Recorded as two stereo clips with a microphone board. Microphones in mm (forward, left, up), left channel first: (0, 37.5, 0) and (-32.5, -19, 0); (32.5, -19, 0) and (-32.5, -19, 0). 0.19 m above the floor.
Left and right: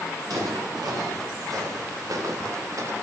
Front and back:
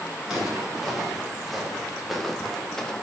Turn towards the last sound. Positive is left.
turn(degrees=-80)